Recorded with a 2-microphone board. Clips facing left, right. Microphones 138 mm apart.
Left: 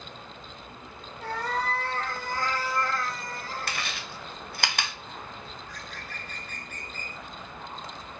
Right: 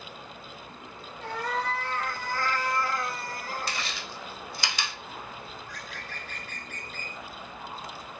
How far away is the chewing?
About 0.5 m.